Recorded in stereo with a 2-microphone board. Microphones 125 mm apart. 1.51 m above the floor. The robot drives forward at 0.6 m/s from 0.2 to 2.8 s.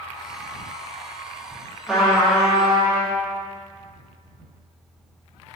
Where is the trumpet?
5° right (ahead or behind), 2 m.